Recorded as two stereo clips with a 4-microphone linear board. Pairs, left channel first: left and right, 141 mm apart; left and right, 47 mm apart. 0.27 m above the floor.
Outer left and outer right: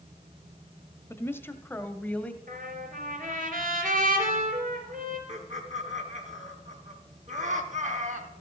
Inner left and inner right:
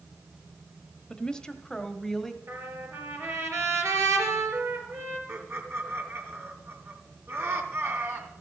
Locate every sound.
1.1 s a woman speaking: 15° left (ahead or behind), 1.0 m; by 2.4 s 10° left (ahead or behind), 1.3 m
2.5 s a trumpet: 75° right (ahead or behind), 3.5 m
5.3 s laughter: 60° right (ahead or behind), 2.5 m